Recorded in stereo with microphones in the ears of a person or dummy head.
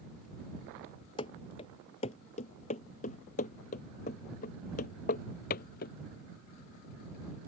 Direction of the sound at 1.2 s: 30° left (ahead or behind).